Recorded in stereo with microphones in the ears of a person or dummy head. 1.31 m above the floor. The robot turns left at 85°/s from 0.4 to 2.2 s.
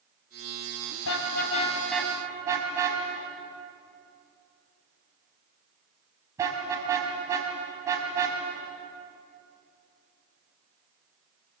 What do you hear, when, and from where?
1.1 s a car horn: 75° left (ahead or behind), 4 m; by 8.4 s 20° right (ahead or behind), 4 m